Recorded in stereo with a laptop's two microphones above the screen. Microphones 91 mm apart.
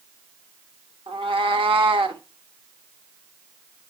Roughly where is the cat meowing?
Right.